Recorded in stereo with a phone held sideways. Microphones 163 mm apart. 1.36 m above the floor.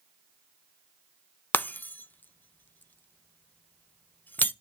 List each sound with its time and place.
1.5 s breaking glass: 10° left (ahead or behind), 0.5 m